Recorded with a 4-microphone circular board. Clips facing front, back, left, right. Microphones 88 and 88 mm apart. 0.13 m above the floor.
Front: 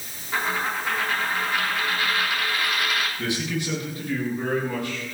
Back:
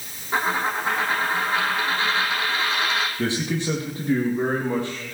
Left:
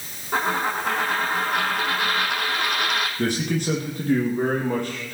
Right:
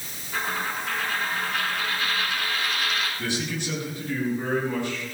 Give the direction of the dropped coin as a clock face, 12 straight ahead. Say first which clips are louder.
Back 3 dB, left 6 dB; 8 o'clock.